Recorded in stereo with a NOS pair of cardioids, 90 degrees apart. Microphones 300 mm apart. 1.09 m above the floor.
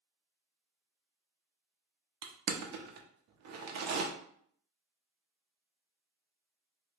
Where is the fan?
No fan in this recording.